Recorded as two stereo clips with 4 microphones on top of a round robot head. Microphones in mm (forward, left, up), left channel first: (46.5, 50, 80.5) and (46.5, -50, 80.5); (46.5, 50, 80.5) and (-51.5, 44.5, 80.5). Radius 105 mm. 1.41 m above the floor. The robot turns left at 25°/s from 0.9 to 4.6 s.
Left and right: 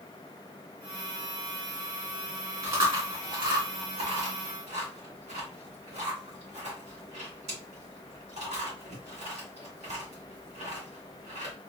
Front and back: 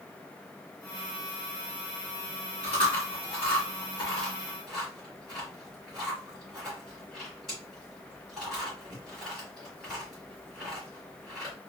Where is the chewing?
35° right, 2 m; by 11.5 s 85° right, 2 m.